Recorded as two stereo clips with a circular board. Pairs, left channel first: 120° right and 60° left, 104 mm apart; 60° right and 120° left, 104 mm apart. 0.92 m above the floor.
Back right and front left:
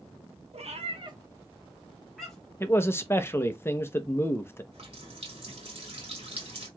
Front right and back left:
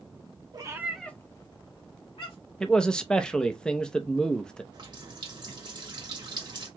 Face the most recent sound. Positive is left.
turn(degrees=80)